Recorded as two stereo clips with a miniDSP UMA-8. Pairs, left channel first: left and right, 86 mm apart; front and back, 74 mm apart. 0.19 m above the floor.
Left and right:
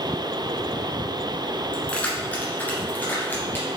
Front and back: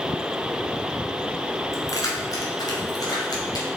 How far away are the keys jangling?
About 1.6 m.